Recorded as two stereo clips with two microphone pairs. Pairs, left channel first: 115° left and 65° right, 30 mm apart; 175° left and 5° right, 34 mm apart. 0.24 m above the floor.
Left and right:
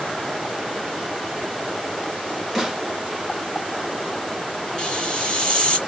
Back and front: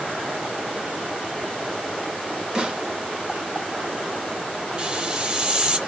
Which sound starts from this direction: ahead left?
A hiss, at 4.8 s.